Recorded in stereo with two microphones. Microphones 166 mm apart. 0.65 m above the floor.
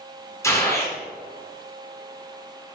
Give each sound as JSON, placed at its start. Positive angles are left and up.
{"t": 0.4, "sound": "a gunshot", "side_deg": 20, "distance_m": 4.0}